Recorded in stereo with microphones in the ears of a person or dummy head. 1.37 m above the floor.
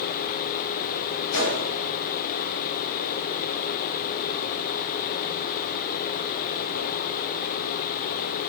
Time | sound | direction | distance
1.3 | a gunshot | 75° left (ahead or behind) | 1.5 m